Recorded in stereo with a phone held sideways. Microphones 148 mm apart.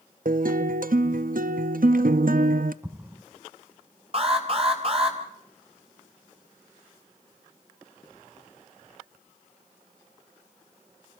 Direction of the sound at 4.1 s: 40° right (ahead or behind).